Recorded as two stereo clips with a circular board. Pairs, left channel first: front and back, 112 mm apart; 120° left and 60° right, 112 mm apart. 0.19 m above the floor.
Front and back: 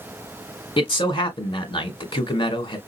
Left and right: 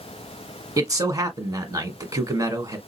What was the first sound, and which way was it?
A man speaking, 15° right.